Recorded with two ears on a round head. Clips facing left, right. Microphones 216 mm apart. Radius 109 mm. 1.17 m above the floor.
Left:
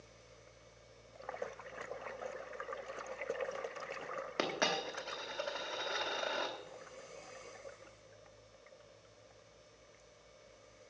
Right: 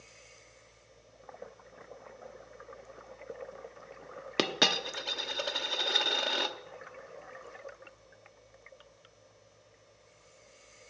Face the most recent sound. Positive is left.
turn(degrees=-50)  # may be behind; listen again after turning